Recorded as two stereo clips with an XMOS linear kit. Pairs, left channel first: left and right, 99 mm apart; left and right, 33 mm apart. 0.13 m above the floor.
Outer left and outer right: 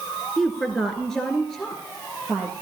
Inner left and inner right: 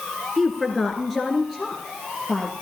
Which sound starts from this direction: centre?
A woman speaking, at 0.4 s.